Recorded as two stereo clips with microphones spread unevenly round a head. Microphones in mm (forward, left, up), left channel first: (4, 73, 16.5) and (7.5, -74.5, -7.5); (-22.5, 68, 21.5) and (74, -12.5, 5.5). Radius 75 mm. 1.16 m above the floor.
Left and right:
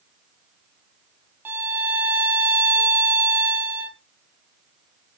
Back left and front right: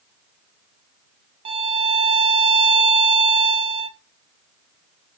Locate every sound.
1.4 s a violin: 20° right, 0.6 m